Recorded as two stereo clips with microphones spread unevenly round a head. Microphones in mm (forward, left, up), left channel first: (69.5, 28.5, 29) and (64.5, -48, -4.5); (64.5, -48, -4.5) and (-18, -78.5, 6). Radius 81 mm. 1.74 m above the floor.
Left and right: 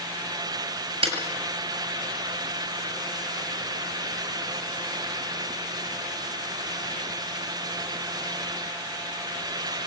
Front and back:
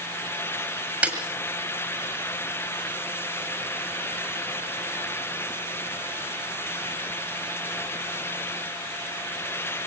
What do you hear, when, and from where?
1.0 s a snare drum: 85° right, 7 m